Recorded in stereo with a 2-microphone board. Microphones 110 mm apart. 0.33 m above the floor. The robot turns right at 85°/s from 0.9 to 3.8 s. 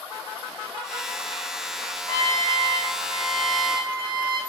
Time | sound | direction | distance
2.1 | a trumpet | 30° left | 3.5 m